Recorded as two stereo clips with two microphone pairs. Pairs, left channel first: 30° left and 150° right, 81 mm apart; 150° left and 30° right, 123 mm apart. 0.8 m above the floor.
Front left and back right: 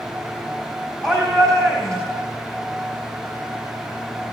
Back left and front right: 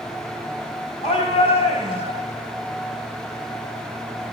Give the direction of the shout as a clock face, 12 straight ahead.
8 o'clock.